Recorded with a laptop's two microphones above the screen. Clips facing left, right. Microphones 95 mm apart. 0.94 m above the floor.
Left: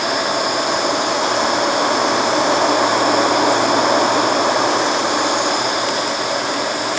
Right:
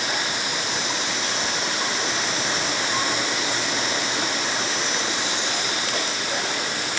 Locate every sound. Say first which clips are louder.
0.0 s a machine running: left 10 dB; 60° left (ahead or behind)